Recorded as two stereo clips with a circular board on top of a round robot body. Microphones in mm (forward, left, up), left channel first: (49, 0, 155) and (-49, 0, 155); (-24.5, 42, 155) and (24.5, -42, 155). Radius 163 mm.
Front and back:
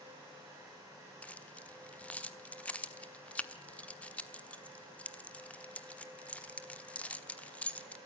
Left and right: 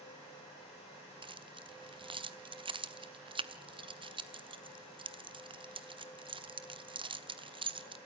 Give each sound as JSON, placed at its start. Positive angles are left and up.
{"t": 1.2, "sound": "keys jangling", "azimuth_deg": -75, "distance_m": 1.3}